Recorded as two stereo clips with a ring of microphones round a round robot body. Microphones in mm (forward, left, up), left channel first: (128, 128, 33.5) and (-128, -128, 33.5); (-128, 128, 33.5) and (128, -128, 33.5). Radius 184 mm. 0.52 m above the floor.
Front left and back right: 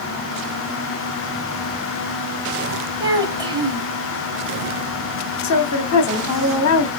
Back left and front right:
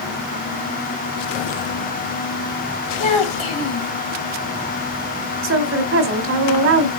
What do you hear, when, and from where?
3.0 s a child speaking: 145° left, 3 m
5.4 s a woman speaking: 5° left, 1.5 m